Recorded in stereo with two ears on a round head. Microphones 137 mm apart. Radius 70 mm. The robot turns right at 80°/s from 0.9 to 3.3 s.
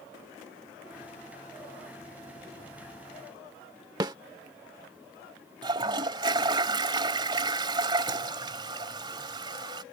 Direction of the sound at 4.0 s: 25° right (ahead or behind).